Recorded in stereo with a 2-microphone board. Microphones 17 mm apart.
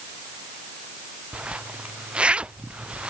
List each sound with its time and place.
1.3 s a zipper: 75° right (ahead or behind)